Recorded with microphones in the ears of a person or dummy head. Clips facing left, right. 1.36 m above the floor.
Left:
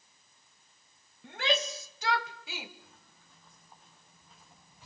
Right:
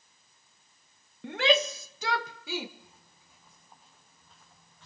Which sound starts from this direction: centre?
Footsteps, at 2.8 s.